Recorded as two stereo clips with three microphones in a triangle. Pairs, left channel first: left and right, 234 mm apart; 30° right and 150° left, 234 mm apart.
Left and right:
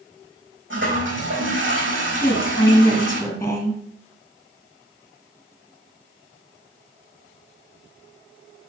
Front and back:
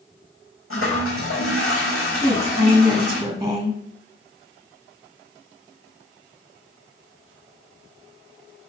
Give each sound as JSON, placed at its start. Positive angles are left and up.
{"t": 0.7, "sound": "a toilet flushing", "azimuth_deg": -55, "distance_m": 4.5}
{"t": 2.2, "sound": "a woman speaking", "azimuth_deg": 125, "distance_m": 1.7}